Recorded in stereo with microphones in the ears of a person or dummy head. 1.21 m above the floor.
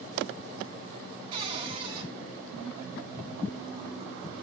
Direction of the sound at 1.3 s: 30° right (ahead or behind).